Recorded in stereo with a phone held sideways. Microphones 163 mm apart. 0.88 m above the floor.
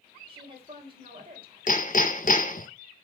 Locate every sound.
0.3 s a woman speaking: 30° right (ahead or behind), 3.5 m
1.7 s hammering: 55° left (ahead or behind), 0.7 m